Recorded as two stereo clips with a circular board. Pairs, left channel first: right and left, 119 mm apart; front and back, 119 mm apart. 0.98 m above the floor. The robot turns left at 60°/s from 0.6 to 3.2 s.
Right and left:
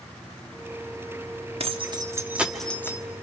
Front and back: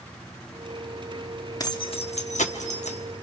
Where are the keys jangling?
60° left, 1.4 m; by 3.0 s 30° right, 1.4 m.